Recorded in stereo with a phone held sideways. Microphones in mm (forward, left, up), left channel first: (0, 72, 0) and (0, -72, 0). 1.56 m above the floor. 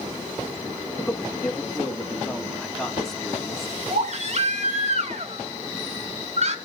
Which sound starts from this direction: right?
A baby crying, at 3.9 s.